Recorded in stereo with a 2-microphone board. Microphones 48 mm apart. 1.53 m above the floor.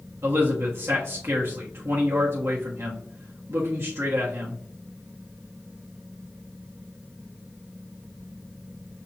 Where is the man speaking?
65° right (ahead or behind), 1.1 m.